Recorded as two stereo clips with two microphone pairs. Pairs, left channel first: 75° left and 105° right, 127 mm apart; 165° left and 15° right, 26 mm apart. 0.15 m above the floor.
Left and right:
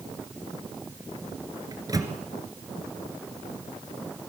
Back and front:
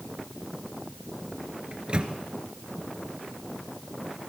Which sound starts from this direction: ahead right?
A microwave, at 1.7 s.